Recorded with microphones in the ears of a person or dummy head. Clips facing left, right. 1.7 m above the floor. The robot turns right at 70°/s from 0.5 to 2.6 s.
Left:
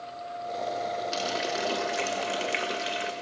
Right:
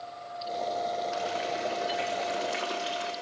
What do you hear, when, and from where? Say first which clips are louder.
1.1 s a running tap: left 1 dB; 45° left, 1.5 m; by 3.1 s 150° left, 1.5 m